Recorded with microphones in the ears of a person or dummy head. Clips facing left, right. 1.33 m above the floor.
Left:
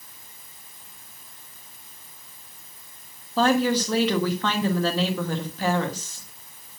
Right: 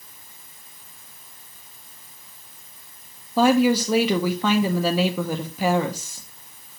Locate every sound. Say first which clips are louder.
3.4 s a woman speaking: right 4 dB; 10° right (ahead or behind), 1.1 m